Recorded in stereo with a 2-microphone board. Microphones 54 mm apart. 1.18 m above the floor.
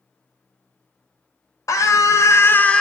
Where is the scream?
80° left, 0.9 m; by 2.8 s 15° left (ahead or behind), 0.5 m.